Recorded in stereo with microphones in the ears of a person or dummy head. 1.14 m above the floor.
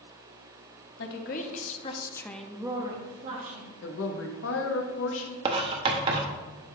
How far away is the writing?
About 0.6 m.